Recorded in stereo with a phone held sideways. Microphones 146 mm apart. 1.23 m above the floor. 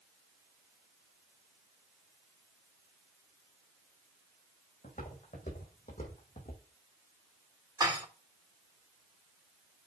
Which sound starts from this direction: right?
Dishes clattering, at 7.8 s.